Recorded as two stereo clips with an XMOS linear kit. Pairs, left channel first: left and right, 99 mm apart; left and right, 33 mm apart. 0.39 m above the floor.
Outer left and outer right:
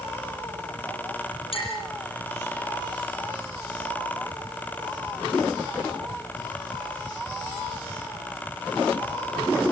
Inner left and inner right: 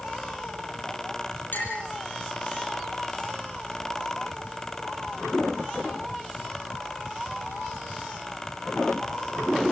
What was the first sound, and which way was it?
A clink, 65° left (ahead or behind).